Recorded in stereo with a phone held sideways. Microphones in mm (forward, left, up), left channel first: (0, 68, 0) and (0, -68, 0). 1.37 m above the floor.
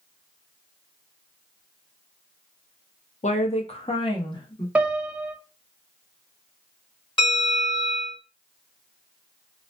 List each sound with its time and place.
3.2 s a woman speaking: 60° left (ahead or behind), 0.5 m; by 4.7 s 35° left (ahead or behind), 1.1 m
4.8 s a piano: 10° right (ahead or behind), 0.5 m
7.2 s a bell: 35° left (ahead or behind), 1.6 m